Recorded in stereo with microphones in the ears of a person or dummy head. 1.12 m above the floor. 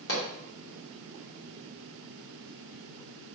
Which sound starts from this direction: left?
A pop, at 0.1 s.